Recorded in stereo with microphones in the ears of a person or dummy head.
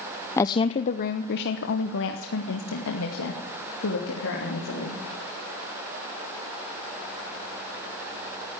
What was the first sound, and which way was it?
A woman speaking, 10° left (ahead or behind).